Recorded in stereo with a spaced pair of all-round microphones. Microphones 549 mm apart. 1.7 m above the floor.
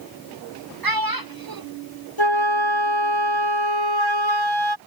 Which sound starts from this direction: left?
A flute, at 2.2 s.